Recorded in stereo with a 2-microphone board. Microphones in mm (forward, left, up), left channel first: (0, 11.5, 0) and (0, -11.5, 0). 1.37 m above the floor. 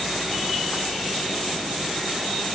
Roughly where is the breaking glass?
No breaking glass in this recording.